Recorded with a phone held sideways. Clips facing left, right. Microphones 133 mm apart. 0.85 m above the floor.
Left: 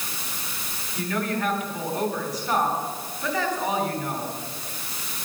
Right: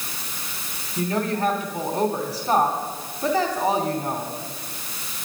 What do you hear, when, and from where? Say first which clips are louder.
1.0 s a woman speaking: right 3 dB; 35° right (ahead or behind), 3 m